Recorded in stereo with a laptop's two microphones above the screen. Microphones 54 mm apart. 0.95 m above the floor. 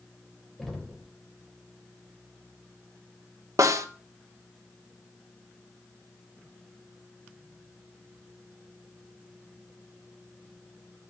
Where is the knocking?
Centre (ahead or behind), 2.5 m.